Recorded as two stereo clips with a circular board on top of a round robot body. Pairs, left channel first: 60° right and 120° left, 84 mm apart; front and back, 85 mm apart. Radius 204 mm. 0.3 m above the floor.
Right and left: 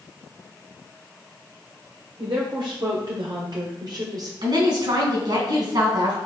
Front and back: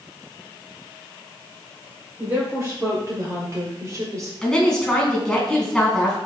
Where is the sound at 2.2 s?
125° left, 2.5 m; by 4.3 s 145° left, 1.8 m.